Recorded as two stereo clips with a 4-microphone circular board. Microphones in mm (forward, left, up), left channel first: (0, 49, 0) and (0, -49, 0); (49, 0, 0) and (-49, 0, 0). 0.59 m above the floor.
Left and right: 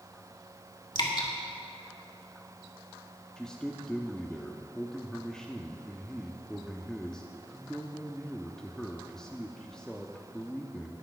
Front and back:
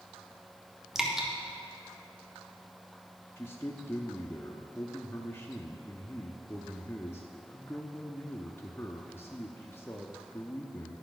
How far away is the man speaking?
About 0.8 m.